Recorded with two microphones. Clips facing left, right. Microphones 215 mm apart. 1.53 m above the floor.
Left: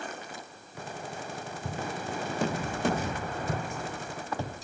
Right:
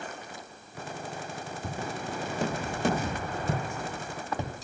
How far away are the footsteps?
About 4 m.